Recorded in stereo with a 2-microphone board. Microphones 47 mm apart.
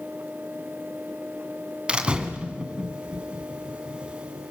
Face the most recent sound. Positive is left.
turn(degrees=-20)  # may be behind; listen again after turning